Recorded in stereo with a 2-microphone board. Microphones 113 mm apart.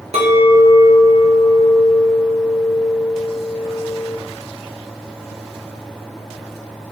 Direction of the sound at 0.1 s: 70° right (ahead or behind).